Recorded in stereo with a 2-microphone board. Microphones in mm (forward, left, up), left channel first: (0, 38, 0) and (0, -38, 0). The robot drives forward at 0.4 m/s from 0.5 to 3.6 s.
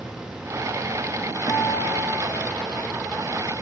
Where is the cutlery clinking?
I don't hear cutlery clinking.